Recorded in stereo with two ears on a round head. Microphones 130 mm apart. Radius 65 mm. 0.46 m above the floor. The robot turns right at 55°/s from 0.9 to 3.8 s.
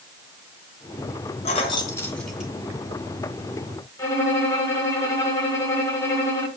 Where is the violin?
25° left (ahead or behind), 4 m.